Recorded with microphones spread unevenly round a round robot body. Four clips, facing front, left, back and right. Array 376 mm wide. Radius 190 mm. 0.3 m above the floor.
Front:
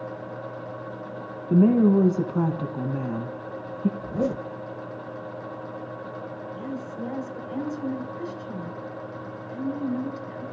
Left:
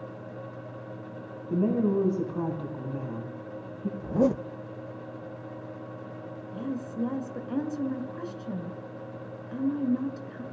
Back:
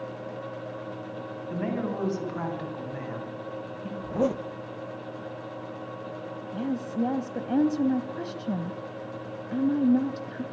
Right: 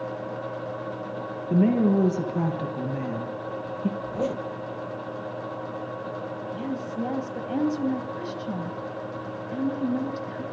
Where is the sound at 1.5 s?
25° right, 3.5 m.